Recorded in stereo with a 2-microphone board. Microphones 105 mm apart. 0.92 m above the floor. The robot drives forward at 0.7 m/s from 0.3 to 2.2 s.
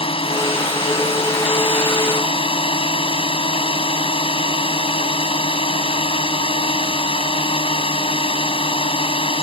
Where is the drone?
60° left (ahead or behind).